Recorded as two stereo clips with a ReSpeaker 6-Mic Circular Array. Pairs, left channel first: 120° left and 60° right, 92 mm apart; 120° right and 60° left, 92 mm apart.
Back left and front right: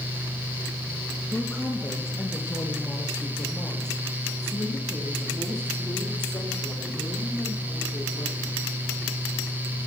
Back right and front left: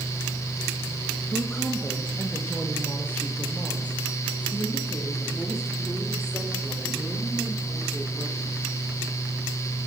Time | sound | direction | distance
1.3 | a woman speaking | straight behind | 3 m